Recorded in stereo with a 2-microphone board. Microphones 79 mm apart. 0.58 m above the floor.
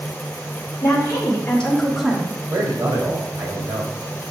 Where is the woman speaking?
40° left (ahead or behind), 2 m; by 2.4 s 25° right (ahead or behind), 1.4 m.